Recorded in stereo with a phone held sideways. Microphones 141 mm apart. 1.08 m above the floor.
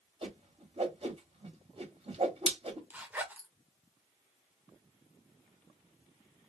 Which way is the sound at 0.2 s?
45° right (ahead or behind).